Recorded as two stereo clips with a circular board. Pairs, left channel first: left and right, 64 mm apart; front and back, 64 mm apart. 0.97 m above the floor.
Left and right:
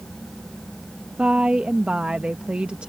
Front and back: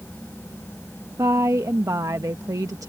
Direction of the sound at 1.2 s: 160° right.